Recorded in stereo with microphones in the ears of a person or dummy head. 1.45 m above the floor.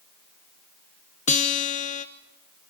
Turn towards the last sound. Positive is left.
turn(degrees=40)  # may be behind; listen again after turning